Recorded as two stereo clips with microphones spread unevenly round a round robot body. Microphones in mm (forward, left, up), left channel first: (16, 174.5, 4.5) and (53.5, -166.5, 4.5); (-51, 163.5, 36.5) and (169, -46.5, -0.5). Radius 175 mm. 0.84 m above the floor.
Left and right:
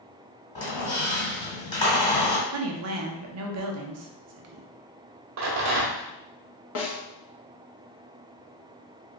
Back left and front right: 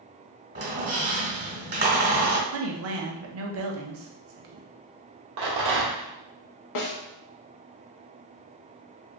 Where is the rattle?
40° right, 0.9 m.